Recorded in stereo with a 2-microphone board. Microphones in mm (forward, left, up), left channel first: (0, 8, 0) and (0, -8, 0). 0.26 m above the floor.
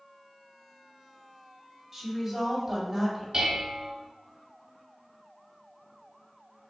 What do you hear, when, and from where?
1.9 s a woman speaking: 15° right (ahead or behind), 1.5 m
3.3 s dishes clattering: 40° right (ahead or behind), 0.9 m